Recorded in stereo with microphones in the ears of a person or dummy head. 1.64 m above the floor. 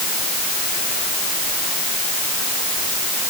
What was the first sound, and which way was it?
Only background noise.